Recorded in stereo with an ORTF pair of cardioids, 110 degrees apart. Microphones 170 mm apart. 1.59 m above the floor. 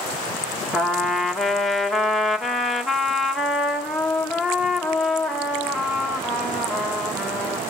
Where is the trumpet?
Straight ahead, 1.8 m.